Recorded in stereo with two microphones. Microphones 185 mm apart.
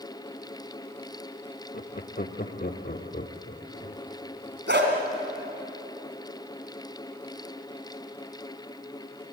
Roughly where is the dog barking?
Right.